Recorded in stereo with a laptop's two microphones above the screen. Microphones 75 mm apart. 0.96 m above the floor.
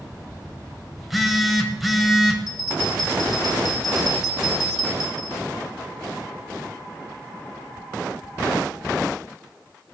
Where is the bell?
5° right (ahead or behind), 3 m.